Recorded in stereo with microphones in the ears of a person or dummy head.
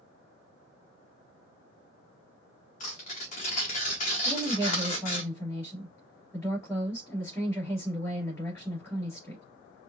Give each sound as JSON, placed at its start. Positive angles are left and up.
{"t": 2.8, "sound": "tearing paper", "side_deg": 40, "distance_m": 1.3}
{"t": 4.2, "sound": "a woman speaking", "side_deg": 10, "distance_m": 3.0}